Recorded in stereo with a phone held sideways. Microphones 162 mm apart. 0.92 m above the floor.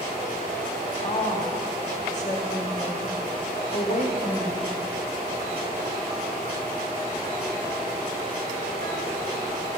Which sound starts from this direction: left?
A woman speaking, at 1.0 s.